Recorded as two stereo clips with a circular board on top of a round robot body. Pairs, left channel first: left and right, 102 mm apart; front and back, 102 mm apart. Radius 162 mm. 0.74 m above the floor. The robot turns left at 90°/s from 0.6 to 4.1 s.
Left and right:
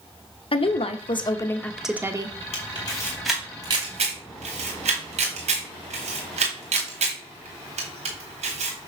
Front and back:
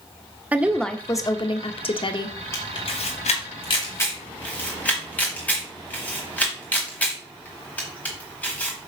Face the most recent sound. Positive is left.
turn(degrees=-75)